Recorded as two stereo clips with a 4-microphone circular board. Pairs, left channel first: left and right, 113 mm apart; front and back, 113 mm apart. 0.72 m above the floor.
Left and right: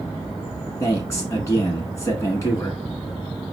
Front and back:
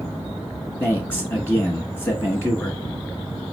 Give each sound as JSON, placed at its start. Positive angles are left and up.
{"t": 0.8, "sound": "a man speaking", "azimuth_deg": 60, "distance_m": 1.2}